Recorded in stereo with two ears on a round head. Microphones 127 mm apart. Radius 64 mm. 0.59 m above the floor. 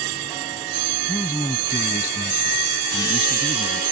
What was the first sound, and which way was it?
A man speaking, 25° left (ahead or behind).